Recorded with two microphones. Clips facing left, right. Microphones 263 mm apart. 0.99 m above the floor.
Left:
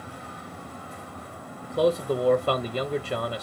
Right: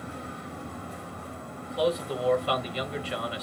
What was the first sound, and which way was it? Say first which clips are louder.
A man speaking: left 4 dB; 50° left (ahead or behind).